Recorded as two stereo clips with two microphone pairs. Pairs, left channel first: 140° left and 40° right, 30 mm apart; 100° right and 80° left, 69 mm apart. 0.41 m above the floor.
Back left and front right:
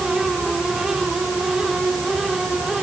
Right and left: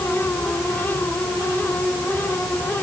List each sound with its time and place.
Only background noise.